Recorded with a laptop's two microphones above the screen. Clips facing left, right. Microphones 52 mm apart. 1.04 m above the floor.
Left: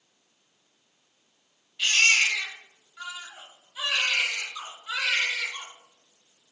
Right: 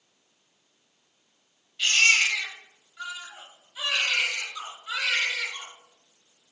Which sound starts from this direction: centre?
A baby crying, at 1.8 s.